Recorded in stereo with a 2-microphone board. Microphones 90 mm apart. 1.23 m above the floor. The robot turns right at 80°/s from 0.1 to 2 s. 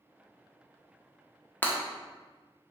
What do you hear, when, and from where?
1.6 s breaking glass: 20° left (ahead or behind), 0.5 m; by 1.8 s 25° left (ahead or behind), 0.5 m